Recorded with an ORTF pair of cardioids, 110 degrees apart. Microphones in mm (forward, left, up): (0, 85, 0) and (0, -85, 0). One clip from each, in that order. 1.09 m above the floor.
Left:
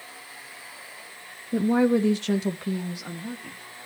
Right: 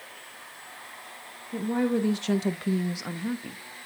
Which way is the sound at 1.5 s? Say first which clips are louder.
Left 5 dB; 45° left.